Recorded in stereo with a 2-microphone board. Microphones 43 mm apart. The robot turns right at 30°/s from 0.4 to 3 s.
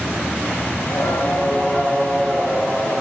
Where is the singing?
120° left, 5 m; by 3.0 s 175° right, 5 m.